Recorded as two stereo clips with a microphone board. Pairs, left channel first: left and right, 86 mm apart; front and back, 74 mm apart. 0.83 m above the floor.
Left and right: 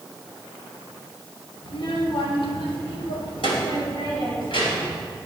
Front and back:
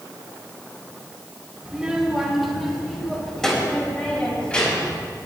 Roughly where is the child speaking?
Left.